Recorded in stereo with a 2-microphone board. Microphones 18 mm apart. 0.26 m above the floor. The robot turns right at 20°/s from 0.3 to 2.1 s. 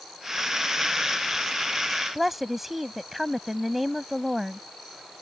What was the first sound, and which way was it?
A woman speaking, 15° right (ahead or behind).